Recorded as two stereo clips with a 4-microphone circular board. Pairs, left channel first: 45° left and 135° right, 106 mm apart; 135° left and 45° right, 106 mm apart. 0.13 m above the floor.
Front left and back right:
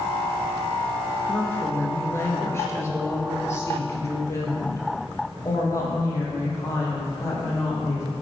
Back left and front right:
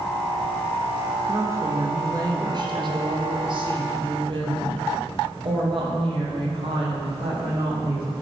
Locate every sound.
1.2 s a woman speaking: 10° right, 1.5 m; by 8.2 s 15° right, 5.5 m